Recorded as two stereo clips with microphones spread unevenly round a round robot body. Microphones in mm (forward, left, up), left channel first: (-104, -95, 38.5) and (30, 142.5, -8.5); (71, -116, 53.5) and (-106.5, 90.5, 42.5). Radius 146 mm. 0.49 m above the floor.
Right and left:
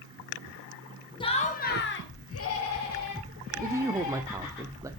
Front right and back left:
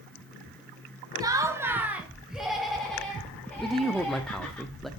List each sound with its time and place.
1.2 s laughter: 170° left, 1.2 m; by 4.6 s 135° right, 3 m
3.6 s a man speaking: 45° left, 0.7 m